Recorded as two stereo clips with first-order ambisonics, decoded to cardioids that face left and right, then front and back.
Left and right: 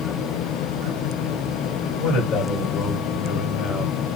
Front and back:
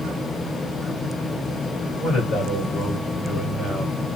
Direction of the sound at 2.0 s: 50° left.